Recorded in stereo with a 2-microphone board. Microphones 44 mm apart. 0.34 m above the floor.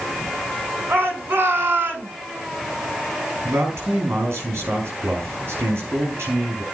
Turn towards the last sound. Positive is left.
turn(degrees=-80)